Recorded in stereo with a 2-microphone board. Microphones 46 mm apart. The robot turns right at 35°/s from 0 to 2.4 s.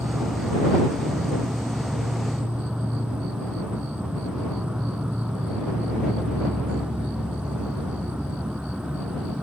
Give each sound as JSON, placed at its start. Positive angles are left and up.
{"t": 0.0, "sound": "an insect", "azimuth_deg": -105}